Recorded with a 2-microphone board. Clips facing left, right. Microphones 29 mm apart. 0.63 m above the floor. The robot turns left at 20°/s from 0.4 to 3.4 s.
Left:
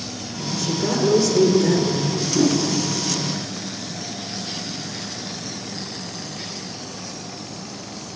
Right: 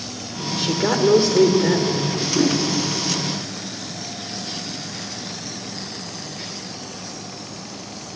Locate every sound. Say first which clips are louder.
0.5 s a woman speaking: right 2 dB; 120° right, 2 m; by 2.2 s 155° right, 2 m
2.3 s a whoosh: left 1 dB; 20° right (ahead or behind), 4.5 m; by 2.6 s 25° right (ahead or behind), 4.5 m